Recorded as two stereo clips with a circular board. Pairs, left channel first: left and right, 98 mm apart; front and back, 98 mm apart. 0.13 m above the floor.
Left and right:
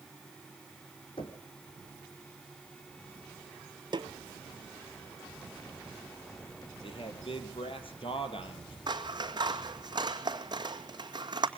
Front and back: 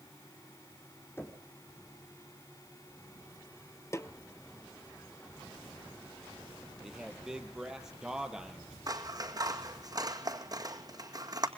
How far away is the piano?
No piano in this recording.